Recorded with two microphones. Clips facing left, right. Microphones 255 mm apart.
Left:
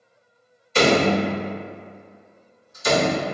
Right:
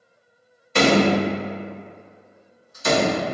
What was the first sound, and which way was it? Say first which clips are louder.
A door slam: right 1 dB; 60° right (ahead or behind).